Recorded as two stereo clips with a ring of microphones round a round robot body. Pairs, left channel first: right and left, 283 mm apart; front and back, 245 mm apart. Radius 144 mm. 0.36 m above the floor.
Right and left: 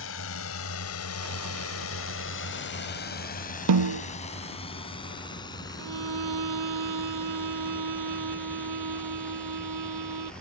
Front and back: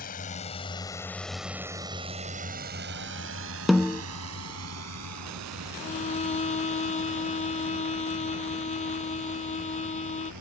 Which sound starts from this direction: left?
A snare drum, at 3.7 s.